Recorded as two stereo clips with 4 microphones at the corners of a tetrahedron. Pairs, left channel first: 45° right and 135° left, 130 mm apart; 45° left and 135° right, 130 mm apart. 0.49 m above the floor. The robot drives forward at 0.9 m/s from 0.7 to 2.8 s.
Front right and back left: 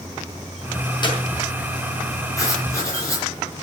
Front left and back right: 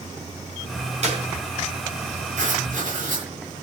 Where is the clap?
100° right, 5.5 m.